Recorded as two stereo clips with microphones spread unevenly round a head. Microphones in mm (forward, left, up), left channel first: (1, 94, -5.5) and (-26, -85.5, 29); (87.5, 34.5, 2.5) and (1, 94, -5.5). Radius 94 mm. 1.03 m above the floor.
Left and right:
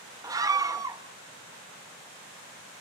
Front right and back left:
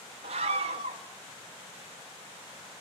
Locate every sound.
0.2 s a scream: 175° right, 1.6 m